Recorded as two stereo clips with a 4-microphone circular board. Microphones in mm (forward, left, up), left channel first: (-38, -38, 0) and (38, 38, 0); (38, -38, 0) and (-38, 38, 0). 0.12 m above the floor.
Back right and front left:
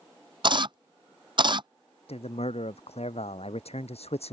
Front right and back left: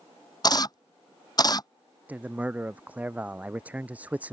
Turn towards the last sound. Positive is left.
turn(degrees=-150)